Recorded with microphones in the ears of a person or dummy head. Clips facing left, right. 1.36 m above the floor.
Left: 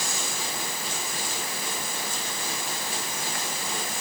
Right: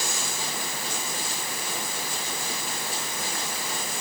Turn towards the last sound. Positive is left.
No sound to turn to.